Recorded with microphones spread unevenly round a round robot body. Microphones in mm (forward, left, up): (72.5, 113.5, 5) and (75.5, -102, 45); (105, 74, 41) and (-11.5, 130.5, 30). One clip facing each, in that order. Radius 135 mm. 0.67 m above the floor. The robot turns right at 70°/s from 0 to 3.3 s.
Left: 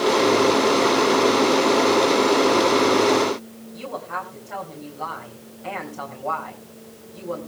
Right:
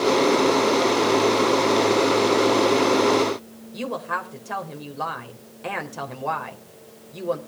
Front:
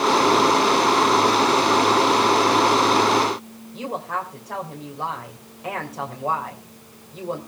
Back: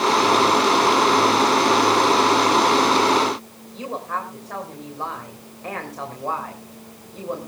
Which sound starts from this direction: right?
A woman speaking, at 3.7 s.